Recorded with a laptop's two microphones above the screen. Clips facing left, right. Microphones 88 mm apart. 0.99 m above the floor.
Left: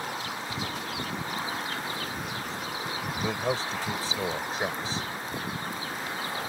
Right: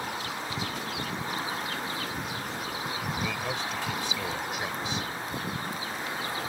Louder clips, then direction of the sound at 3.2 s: Left 3 dB; 35° left (ahead or behind).